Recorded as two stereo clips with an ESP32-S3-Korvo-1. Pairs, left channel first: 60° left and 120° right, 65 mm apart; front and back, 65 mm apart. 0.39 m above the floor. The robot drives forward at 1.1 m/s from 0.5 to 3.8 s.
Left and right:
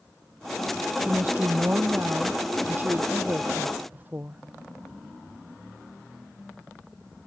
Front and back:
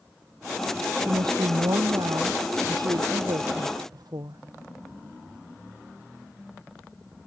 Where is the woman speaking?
175° left.